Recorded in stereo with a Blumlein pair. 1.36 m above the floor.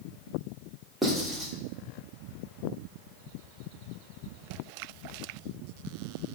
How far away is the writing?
About 3 m.